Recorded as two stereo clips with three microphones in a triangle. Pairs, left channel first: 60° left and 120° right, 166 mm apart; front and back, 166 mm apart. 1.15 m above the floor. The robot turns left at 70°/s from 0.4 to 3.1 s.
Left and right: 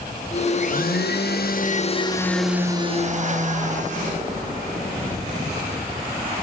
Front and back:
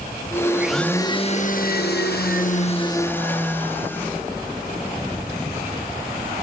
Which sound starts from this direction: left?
A blender, at 0.5 s.